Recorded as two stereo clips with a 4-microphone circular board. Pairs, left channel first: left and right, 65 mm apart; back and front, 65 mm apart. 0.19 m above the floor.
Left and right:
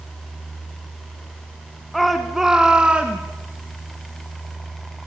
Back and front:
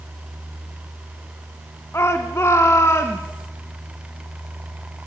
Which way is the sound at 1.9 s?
Straight behind.